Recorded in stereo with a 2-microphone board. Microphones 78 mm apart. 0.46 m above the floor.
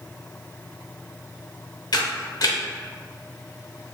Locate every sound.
1.9 s a camera shutter: 60° left (ahead or behind), 0.7 m